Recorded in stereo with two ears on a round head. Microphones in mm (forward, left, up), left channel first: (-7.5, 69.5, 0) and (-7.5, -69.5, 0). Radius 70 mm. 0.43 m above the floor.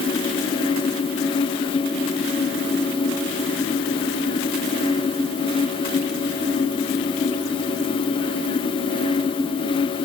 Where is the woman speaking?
I don't hear a woman speaking.